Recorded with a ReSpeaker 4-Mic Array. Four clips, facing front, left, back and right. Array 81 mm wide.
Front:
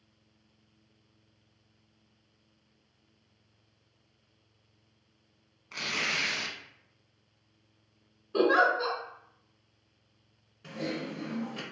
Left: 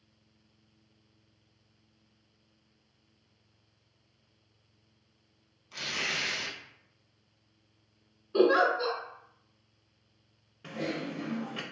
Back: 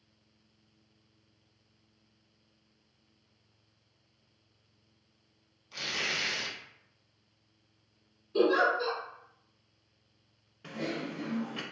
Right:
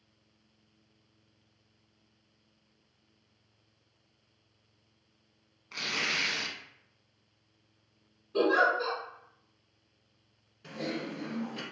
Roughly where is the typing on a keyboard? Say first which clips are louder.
Left 1 dB, front 1 dB; behind left.